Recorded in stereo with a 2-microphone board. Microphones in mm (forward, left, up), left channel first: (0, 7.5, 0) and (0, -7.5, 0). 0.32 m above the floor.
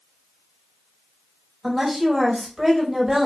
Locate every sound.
1.6 s a woman speaking: 20° right (ahead or behind), 1.0 m